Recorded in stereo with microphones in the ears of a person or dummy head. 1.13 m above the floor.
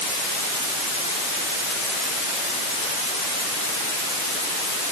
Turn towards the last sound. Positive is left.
No sound to turn to.